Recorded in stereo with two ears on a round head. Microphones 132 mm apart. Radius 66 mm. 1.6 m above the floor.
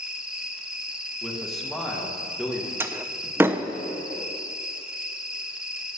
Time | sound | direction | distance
0.0 | an insect | 5° right (ahead or behind) | 1.0 m
1.2 | a man speaking | centre (ahead or behind) | 1.9 m
2.8 | a door slam | 15° right (ahead or behind) | 0.5 m